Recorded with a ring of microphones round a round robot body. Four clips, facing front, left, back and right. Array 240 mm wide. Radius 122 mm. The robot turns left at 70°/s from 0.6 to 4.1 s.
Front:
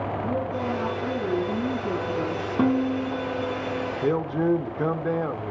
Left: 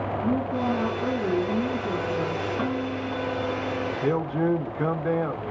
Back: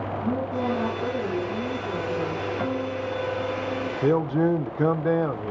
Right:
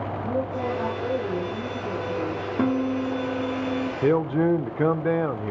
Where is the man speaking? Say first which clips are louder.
Right 4 dB, back 3 dB; 110° right, 1.2 m; by 5.5 s 115° right, 1.2 m.